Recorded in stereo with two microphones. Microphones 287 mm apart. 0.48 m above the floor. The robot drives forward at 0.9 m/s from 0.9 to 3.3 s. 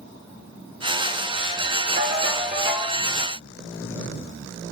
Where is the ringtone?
30° right (ahead or behind), 4 m; by 3.0 s 25° right (ahead or behind), 4.5 m.